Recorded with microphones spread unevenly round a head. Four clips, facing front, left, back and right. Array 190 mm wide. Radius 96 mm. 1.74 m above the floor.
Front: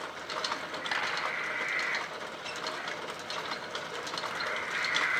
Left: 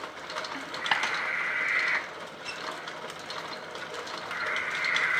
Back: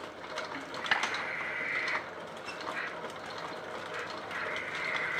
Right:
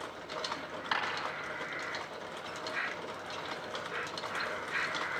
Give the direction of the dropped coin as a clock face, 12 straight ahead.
8 o'clock.